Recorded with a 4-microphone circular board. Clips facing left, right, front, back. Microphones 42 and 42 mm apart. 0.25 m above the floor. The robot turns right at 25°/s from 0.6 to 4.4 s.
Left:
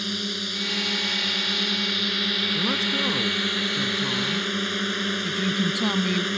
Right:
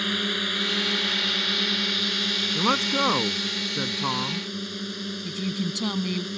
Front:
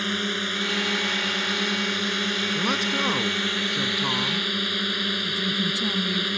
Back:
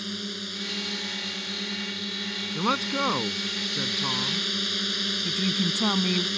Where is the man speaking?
115° right; by 4.5 s 70° right.